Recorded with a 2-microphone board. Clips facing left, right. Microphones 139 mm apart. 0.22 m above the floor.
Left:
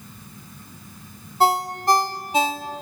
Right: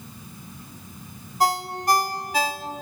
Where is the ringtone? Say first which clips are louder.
Left 3 dB; 25° left (ahead or behind), 0.5 m.